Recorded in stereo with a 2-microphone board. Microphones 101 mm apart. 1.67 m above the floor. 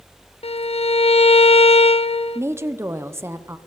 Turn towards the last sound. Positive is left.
turn(degrees=-25)  # may be behind; listen again after turning